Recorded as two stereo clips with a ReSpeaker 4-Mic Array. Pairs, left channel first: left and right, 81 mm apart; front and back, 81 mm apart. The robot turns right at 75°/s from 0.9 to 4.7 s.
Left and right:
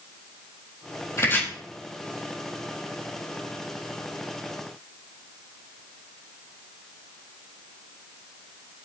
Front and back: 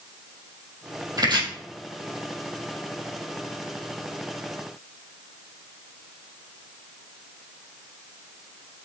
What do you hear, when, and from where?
1.2 s chopping: 140° left, 3.5 m; by 1.4 s 160° left, 3.5 m